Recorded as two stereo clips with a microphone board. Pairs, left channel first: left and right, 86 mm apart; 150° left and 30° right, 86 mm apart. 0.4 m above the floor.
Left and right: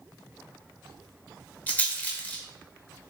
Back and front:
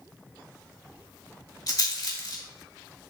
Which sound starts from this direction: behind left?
A rattle, at 1.7 s.